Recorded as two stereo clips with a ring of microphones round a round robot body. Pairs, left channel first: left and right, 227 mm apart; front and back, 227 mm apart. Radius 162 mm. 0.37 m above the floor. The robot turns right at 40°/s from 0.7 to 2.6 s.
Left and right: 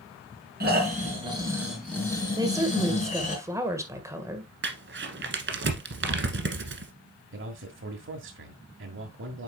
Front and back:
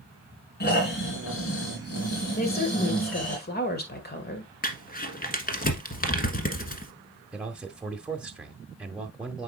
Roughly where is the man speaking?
Right.